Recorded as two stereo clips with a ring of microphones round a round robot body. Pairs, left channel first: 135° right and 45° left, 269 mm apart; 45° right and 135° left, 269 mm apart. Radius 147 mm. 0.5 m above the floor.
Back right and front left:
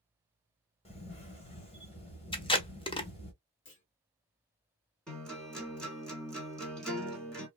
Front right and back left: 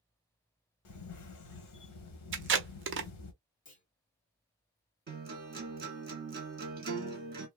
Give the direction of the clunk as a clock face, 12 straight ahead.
3 o'clock.